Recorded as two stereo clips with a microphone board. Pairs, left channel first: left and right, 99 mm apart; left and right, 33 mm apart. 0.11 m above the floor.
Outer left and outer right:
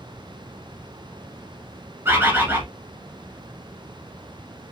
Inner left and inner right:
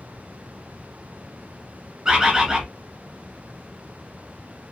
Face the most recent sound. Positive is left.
turn(degrees=-25)  # may be behind; listen again after turning